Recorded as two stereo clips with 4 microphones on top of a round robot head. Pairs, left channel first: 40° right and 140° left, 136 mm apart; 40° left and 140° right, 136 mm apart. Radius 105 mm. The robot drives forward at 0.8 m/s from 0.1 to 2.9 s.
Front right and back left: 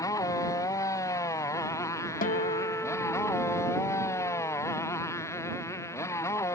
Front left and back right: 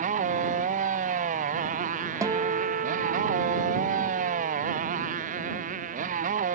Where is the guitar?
70° right; by 4.6 s 125° right.